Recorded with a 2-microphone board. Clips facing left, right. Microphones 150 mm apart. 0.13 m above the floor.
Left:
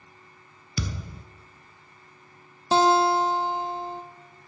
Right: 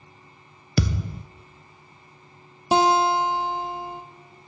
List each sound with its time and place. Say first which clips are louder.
0.8 s a thud: right 8 dB; 75° right (ahead or behind), 0.5 m
2.7 s a guitar: even; 15° right (ahead or behind), 0.7 m